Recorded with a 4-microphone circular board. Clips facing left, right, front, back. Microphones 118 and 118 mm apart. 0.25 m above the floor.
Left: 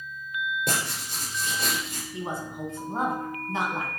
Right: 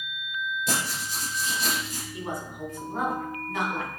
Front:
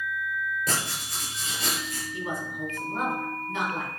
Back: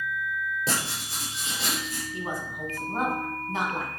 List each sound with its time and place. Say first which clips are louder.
0.7 s writing: even, even; 120° left, 4.5 m
2.1 s a woman speaking: left 2 dB, front 1 dB; 145° left, 2.5 m